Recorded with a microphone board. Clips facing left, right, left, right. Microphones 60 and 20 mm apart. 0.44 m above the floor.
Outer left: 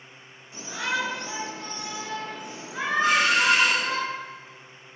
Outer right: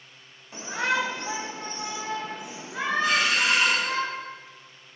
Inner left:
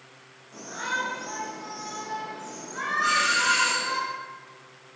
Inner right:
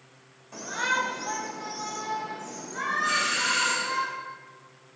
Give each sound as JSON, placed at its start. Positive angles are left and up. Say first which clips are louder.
{"t": 0.5, "sound": "a shout", "louder": "outer right 3 dB, inner right 3 dB", "side_deg": -50, "distance_m": 2.0}
{"t": 3.0, "sound": "a doorbell", "louder": "outer left 4 dB, inner left 4 dB", "side_deg": 60, "distance_m": 3.5}